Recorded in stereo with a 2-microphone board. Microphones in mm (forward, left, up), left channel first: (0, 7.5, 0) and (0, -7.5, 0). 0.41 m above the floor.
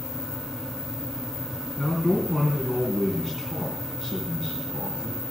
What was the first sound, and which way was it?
A man speaking, 40° left (ahead or behind).